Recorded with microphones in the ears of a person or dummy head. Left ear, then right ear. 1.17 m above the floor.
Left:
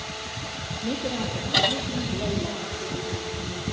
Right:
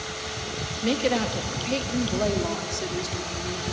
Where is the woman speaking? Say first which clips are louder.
Right 6 dB; 50° right (ahead or behind), 2.0 m; by 3.6 s 65° right (ahead or behind), 4 m.